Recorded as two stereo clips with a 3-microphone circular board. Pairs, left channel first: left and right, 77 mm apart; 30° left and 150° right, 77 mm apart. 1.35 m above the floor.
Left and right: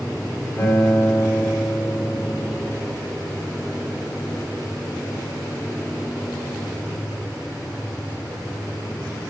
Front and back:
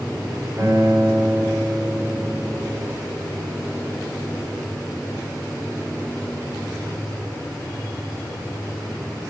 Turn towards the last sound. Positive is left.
turn(degrees=150)